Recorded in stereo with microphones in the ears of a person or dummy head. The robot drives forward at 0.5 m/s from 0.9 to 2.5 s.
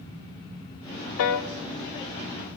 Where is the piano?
75° left (ahead or behind), 0.6 m.